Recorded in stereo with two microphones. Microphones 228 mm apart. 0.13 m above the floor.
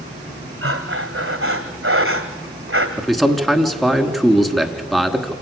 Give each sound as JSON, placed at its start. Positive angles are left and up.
{"t": 0.6, "sound": "breathing", "side_deg": -85, "distance_m": 2.0}
{"t": 3.0, "sound": "a man speaking", "side_deg": 0, "distance_m": 1.4}